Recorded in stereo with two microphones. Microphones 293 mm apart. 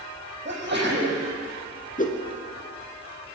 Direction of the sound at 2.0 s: 30° left (ahead or behind).